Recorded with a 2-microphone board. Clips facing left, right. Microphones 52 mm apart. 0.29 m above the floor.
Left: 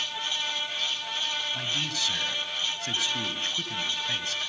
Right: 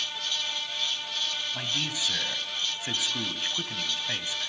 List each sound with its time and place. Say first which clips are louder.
1.5 s a man speaking: left 1 dB; 15° right (ahead or behind), 1.6 m